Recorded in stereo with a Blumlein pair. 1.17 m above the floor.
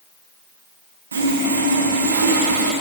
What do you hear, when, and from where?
1.1 s sawing: 70° right, 1.3 m